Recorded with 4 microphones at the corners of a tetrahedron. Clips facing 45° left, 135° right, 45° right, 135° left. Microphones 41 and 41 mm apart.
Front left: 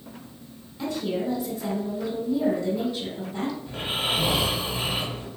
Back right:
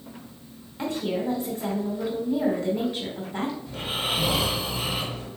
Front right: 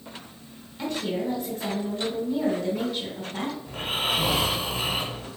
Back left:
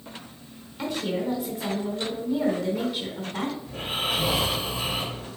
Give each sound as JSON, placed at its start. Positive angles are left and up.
{"t": 0.8, "sound": "a woman speaking", "azimuth_deg": -145, "distance_m": 1.2}
{"t": 3.7, "sound": "snoring", "azimuth_deg": -15, "distance_m": 1.3}